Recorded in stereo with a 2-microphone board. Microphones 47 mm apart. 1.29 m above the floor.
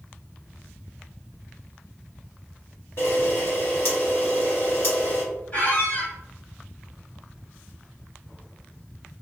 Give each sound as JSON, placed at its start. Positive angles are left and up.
{"t": 3.0, "sound": "a camera shutter", "side_deg": 55, "distance_m": 1.2}
{"t": 5.5, "sound": "a squeak", "side_deg": 40, "distance_m": 1.5}